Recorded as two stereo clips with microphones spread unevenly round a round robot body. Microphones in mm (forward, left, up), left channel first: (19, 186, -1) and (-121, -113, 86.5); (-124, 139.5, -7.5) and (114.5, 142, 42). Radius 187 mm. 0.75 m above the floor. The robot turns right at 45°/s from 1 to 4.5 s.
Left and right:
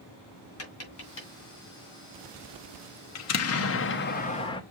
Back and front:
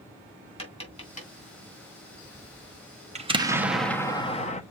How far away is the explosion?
About 1.0 m.